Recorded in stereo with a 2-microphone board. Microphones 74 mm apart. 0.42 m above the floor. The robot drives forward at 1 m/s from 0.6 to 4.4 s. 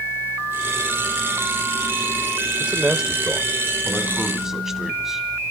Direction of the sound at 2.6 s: 15° right (ahead or behind).